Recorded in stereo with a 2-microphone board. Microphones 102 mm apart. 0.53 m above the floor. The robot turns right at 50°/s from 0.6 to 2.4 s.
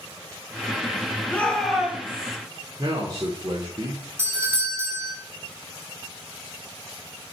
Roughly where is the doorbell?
Right.